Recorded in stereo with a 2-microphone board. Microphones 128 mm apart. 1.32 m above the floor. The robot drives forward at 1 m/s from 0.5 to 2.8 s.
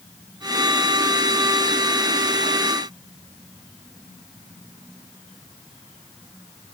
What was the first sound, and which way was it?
Only background noise.